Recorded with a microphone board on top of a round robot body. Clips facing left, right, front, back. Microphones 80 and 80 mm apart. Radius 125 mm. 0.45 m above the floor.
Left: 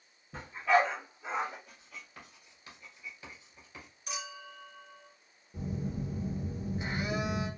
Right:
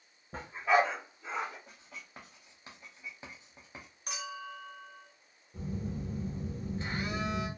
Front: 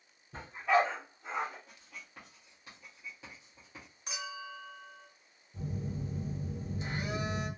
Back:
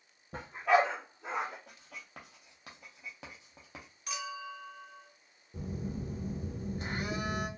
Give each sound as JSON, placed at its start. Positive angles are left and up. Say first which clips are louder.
{"t": 0.3, "sound": "a dog barking", "louder": "even, back 1 dB", "azimuth_deg": -145, "distance_m": 1.1}
{"t": 1.7, "sound": "writing", "louder": "right 1 dB, back 2 dB", "azimuth_deg": -155, "distance_m": 0.6}
{"t": 4.1, "sound": "a clink", "louder": "right 2 dB, back 2 dB", "azimuth_deg": -65, "distance_m": 1.4}
{"t": 5.5, "sound": "a phone buzzing", "louder": "left 1 dB, back 1 dB", "azimuth_deg": 160, "distance_m": 1.0}